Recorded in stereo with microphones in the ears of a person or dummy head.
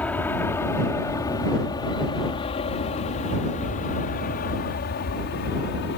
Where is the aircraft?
10° left (ahead or behind); by 6.0 s 60° left (ahead or behind).